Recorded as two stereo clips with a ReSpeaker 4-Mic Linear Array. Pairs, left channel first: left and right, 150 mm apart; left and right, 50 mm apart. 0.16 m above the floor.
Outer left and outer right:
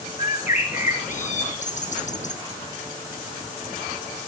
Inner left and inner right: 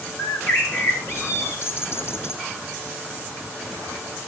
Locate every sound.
0.2 s a bird: 55° left (ahead or behind), 2.5 m